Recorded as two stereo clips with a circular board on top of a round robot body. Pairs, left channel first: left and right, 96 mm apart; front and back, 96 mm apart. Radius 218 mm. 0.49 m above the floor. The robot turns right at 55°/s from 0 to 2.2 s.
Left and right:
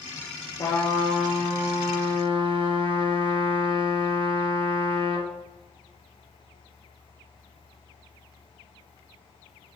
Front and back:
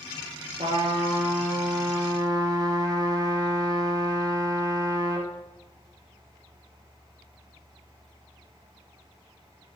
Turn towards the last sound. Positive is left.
turn(degrees=-125)